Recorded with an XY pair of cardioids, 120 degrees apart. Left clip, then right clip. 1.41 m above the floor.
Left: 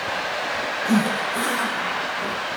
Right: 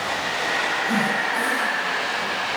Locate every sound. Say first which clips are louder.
0.8 s a zipper: right 1 dB; 40° left, 4 m